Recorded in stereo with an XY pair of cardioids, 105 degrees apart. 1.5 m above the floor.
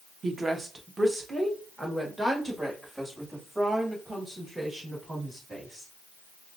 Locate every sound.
0.2 s a woman speaking: 35° right, 0.9 m; by 5.9 s straight ahead, 4 m